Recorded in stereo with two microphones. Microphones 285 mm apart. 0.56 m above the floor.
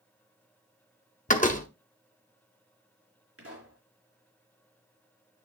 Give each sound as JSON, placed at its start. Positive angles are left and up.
{"t": 1.3, "sound": "a door slam", "side_deg": 25, "distance_m": 0.8}
{"t": 3.4, "sound": "a pop", "side_deg": -55, "distance_m": 3.5}